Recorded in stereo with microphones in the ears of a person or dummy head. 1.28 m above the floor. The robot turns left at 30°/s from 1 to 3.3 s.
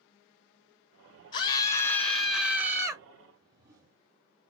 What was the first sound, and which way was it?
A scream, 45° left.